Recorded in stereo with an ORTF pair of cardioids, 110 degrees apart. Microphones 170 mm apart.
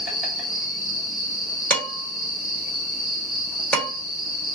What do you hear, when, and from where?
0.0 s an insect: 5° right, 1.7 m
1.7 s dishes clattering: 10° left, 1.7 m